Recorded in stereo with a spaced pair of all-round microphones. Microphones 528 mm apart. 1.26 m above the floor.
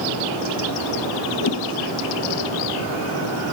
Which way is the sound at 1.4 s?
50° left (ahead or behind).